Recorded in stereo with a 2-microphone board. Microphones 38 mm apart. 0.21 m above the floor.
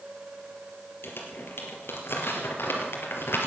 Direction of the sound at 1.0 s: 75° left (ahead or behind).